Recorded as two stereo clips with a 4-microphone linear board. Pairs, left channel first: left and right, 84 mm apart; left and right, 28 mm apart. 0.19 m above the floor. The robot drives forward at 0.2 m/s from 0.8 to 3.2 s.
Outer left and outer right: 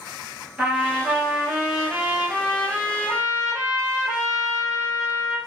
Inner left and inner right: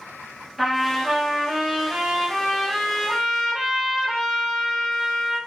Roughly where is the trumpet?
Centre.